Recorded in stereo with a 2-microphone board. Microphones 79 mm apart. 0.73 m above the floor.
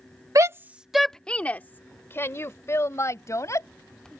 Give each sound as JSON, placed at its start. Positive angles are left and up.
{"t": 0.3, "sound": "a shout", "side_deg": -45}